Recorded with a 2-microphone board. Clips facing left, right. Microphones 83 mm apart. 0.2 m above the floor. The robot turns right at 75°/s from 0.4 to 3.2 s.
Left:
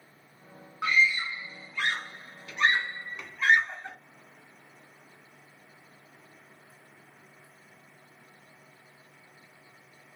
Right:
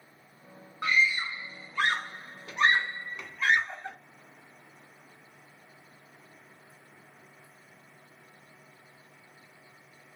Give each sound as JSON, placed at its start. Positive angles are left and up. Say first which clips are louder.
{"t": 0.8, "sound": "a scream", "louder": "left 1 dB", "side_deg": 0, "distance_m": 1.5}